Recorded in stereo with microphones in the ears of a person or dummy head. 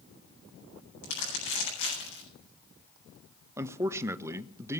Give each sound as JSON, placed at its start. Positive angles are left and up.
{"t": 1.0, "sound": "crumpling", "side_deg": 60, "distance_m": 7.5}
{"t": 3.6, "sound": "a man speaking", "side_deg": -10, "distance_m": 0.7}